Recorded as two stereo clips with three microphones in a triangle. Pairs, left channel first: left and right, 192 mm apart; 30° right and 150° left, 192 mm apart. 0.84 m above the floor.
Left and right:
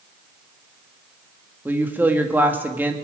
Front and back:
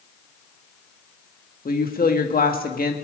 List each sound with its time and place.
1.6 s a woman speaking: 10° right, 1.7 m